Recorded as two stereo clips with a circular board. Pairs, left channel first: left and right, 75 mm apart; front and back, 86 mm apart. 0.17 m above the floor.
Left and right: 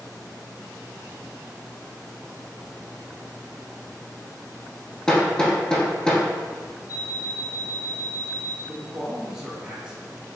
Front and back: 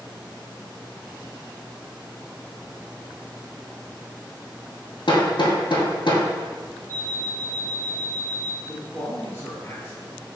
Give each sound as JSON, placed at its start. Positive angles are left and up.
{"t": 5.1, "sound": "hammering", "azimuth_deg": 10, "distance_m": 0.8}
{"t": 6.9, "sound": "an alarm clock", "azimuth_deg": 50, "distance_m": 1.1}
{"t": 8.7, "sound": "a man speaking", "azimuth_deg": -20, "distance_m": 1.2}